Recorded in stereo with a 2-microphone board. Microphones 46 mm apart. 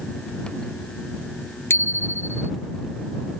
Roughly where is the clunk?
No clunk in this recording.